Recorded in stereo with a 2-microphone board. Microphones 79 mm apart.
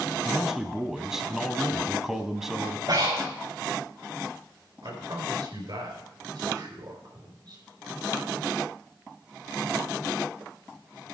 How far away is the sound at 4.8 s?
About 4 m.